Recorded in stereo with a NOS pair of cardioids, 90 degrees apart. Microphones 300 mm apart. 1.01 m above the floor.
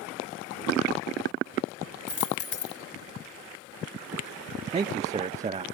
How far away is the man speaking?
About 0.6 m.